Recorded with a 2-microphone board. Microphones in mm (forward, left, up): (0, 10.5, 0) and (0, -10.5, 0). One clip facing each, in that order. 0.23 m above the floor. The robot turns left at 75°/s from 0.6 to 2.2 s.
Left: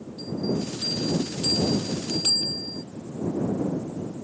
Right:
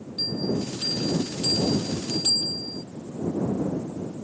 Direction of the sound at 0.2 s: 90° right.